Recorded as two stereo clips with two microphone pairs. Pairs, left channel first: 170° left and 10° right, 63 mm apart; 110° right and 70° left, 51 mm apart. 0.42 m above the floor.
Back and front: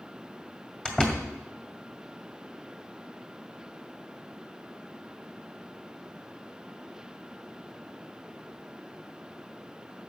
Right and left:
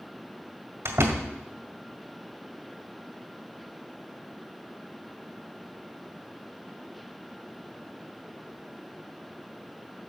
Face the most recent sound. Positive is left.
turn(degrees=95)